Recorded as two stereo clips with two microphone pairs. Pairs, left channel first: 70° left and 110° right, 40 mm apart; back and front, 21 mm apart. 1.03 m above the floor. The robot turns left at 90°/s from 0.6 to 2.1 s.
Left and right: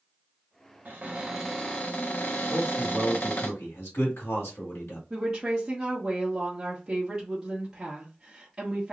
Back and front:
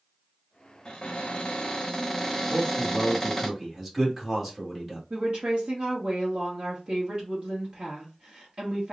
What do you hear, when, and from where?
0.8 s a cupboard door: 145° right, 1.1 m; by 3.5 s 100° left, 1.1 m
2.5 s a man speaking: 80° left, 1.5 m
5.1 s a woman speaking: 35° right, 1.0 m